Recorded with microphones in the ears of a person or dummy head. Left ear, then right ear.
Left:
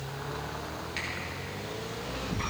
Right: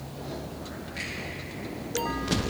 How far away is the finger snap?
About 7 m.